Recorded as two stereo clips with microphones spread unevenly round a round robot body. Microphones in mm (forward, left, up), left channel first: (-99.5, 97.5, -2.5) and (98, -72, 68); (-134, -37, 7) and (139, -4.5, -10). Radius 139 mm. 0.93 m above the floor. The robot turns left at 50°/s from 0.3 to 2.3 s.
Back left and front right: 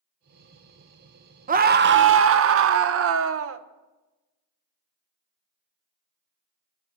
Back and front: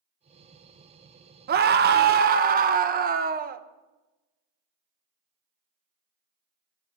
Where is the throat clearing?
No throat clearing in this recording.